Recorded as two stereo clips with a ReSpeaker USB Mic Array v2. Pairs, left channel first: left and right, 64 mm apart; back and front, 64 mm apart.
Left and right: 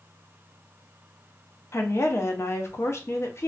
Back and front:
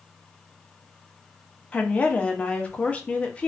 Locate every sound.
1.7 s a woman speaking: 115° left, 0.5 m